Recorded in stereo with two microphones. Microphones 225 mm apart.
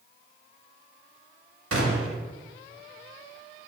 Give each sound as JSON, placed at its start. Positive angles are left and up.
{"t": 1.7, "sound": "a gunshot", "side_deg": -80, "distance_m": 0.5}